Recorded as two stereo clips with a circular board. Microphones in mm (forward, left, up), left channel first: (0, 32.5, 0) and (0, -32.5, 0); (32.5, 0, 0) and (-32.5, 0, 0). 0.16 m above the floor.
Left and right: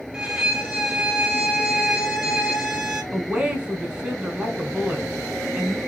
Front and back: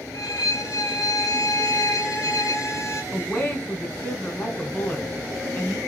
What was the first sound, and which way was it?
A violin, 15° right.